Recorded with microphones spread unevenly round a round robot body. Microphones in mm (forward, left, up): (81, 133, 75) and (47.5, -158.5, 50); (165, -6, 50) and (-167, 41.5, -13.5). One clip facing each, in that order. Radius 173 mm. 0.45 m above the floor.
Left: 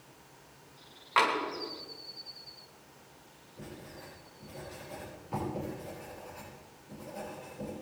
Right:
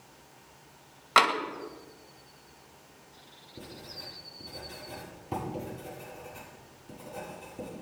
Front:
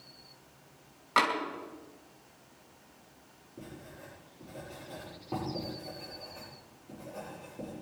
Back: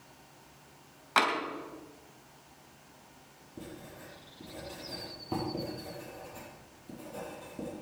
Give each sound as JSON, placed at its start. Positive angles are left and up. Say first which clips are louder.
{"t": 1.2, "sound": "tapping", "louder": "right 3 dB, even", "azimuth_deg": -110, "distance_m": 2.5}
{"t": 3.6, "sound": "writing", "louder": "even, back 2 dB", "azimuth_deg": -135, "distance_m": 9.0}